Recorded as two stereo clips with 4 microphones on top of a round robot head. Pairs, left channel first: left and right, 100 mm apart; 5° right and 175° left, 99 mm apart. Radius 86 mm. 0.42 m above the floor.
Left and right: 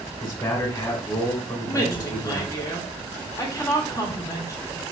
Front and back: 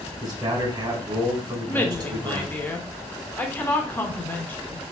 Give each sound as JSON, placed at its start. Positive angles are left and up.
{"t": 0.2, "sound": "a man speaking", "azimuth_deg": 130, "distance_m": 1.9}
{"t": 1.6, "sound": "a woman speaking", "azimuth_deg": 55, "distance_m": 1.2}